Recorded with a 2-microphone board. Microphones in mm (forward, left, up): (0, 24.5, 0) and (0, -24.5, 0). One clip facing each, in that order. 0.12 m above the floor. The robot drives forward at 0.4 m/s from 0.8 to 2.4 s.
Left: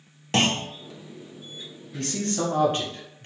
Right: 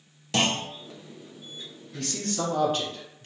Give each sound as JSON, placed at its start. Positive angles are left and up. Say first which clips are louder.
{"t": 0.3, "sound": "a clunk", "louder": "left 2 dB", "side_deg": 35, "distance_m": 0.5}
{"t": 1.9, "sound": "a man speaking", "louder": "left 3 dB", "side_deg": 25, "distance_m": 1.2}